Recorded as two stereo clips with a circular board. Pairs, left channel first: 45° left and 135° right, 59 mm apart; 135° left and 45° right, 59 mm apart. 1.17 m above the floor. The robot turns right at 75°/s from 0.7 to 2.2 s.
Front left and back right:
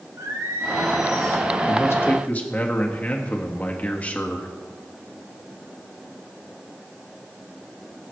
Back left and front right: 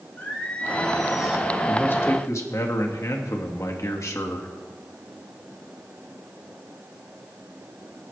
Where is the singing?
160° right, 1.9 m; by 1.5 s 105° right, 1.9 m.